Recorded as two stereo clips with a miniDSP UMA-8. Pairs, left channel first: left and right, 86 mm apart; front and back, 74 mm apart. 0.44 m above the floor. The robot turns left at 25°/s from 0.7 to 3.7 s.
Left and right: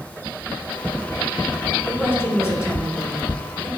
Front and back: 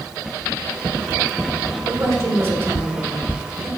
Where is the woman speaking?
150° left, 2 m; by 3.7 s 105° left, 2 m.